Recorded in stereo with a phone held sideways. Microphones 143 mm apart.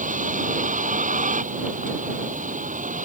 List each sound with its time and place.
0.0 s a vehicle: 60° right (ahead or behind)